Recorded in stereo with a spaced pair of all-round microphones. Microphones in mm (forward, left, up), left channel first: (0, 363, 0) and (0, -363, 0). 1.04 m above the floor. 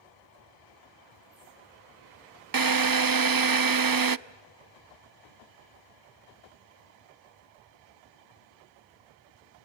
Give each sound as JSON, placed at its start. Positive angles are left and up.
{"t": 2.5, "sound": "a drill", "side_deg": -30, "distance_m": 0.6}